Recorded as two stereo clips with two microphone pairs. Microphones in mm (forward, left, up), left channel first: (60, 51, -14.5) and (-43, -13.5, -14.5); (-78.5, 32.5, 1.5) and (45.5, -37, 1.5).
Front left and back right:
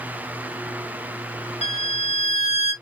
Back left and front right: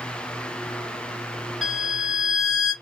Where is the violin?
60° left, 1.9 m.